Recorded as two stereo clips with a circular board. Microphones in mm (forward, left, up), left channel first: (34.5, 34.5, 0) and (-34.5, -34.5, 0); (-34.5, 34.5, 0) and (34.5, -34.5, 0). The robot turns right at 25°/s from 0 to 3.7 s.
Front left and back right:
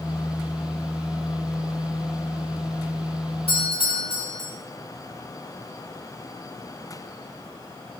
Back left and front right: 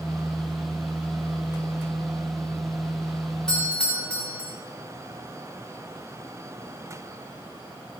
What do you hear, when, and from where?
3.5 s a doorbell: 50° left, 5 m; by 4.5 s 55° left, 5 m